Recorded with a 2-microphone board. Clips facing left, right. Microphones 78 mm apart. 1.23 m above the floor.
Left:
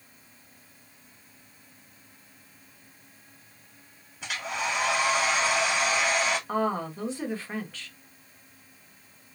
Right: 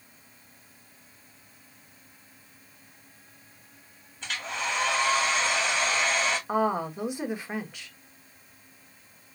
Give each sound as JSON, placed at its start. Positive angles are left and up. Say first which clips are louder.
{"t": 4.2, "sound": "a hair dryer", "louder": "left 1 dB", "side_deg": 10, "distance_m": 2.5}
{"t": 6.5, "sound": "a woman speaking", "louder": "right 2 dB", "side_deg": -15, "distance_m": 1.6}